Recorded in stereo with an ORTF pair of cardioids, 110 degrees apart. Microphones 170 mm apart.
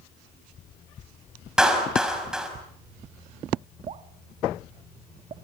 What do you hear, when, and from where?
1.6 s a clap: 5° right, 5.5 m
3.9 s dripping: 45° right, 1.1 m